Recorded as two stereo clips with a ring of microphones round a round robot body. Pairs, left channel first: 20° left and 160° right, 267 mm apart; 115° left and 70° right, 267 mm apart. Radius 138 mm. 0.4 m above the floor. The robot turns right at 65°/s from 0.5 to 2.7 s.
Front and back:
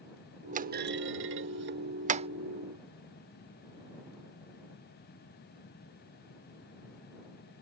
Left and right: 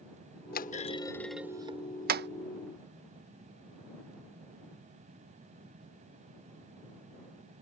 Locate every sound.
0.5 s a clunk: 150° left; by 2.3 s 95° right